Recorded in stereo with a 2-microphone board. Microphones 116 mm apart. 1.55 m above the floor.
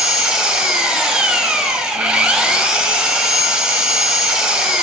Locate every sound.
0.0 s an engine running: 5° right (ahead or behind), 1.2 m